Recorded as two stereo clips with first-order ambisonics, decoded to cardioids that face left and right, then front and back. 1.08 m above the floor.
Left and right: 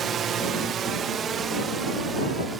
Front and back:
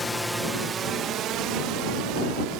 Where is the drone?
65° right; by 2.6 s 160° right.